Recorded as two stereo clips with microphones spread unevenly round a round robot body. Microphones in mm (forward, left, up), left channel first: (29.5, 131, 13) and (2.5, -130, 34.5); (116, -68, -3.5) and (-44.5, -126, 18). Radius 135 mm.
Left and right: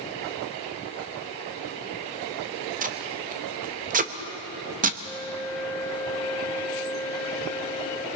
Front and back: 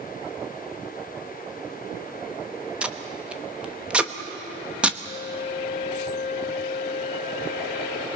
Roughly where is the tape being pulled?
Right.